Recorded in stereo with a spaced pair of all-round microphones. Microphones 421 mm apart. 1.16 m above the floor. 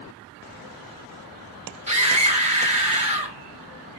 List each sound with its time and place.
1.9 s a scream: 15° right (ahead or behind), 2.0 m